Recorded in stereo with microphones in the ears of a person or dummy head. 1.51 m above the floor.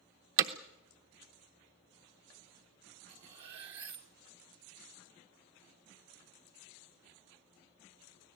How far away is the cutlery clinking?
About 0.6 m.